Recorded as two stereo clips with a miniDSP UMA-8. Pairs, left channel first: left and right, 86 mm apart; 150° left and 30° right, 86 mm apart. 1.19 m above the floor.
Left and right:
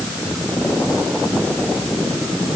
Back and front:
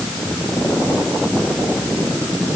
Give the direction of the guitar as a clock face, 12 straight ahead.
I don't hear a guitar.